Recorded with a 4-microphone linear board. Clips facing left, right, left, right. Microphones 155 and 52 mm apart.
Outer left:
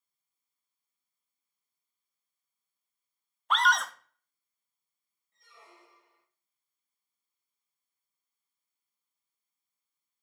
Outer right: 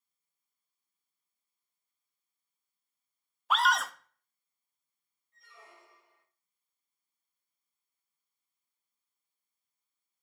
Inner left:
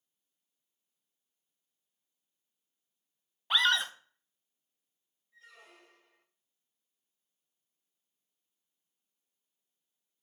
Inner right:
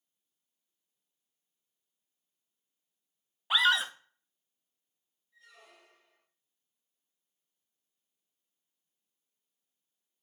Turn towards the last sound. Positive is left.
turn(degrees=30)  # may be behind; listen again after turning